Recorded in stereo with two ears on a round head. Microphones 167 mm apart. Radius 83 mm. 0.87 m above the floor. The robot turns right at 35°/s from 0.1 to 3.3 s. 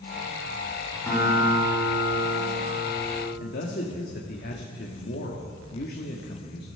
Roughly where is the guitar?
Behind.